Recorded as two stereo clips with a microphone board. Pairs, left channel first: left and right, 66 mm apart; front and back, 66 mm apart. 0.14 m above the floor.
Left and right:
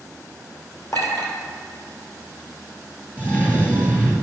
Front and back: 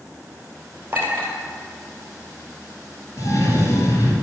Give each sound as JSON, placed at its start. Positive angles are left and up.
{"t": 0.9, "sound": "a clink", "azimuth_deg": 125, "distance_m": 2.5}
{"t": 3.2, "sound": "a cough", "azimuth_deg": 25, "distance_m": 2.5}